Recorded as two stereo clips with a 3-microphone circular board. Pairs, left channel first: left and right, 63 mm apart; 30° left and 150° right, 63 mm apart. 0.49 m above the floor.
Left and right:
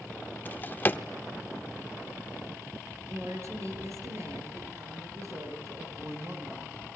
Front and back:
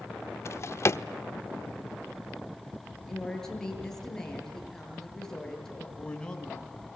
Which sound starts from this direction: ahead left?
A drawer, at 0.5 s.